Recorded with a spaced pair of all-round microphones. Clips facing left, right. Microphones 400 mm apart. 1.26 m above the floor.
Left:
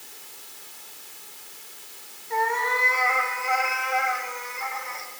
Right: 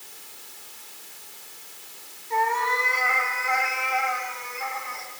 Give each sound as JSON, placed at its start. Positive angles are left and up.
{"t": 2.3, "sound": "a cat meowing", "side_deg": -15, "distance_m": 3.5}